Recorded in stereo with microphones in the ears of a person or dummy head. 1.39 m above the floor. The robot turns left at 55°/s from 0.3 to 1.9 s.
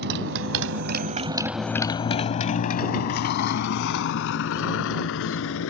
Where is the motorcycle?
60° right (ahead or behind); by 5.7 s 80° left.